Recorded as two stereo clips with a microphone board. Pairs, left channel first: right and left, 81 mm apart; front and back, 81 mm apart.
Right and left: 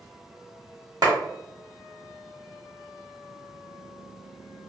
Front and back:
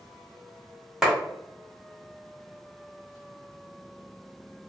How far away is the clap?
About 1.3 m.